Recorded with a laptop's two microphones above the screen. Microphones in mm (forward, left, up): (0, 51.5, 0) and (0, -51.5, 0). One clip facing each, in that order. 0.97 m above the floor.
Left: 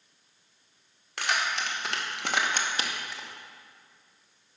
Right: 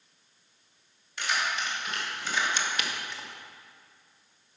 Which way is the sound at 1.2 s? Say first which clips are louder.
Left 1 dB; 70° left (ahead or behind).